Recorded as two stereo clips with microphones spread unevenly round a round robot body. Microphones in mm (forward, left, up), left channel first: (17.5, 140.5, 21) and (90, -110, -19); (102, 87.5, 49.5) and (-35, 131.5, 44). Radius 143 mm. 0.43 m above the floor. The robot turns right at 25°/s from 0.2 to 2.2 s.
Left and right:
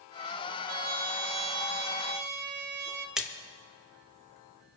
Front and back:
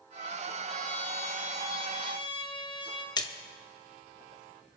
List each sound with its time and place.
0.7 s a trumpet: 100° right, 0.9 m; by 3.1 s 65° right, 0.9 m
3.2 s a splash: 10° right, 0.8 m